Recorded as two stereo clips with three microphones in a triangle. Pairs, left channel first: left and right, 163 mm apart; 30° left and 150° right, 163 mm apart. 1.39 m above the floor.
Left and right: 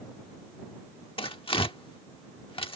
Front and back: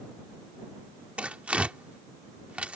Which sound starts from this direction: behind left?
Tearing paper, at 1.2 s.